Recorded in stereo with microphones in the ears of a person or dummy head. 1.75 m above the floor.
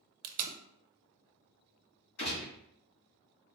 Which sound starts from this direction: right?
Tape being pulled, at 0.2 s.